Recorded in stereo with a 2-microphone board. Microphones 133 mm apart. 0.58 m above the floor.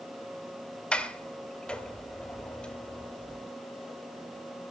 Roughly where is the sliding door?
Centre.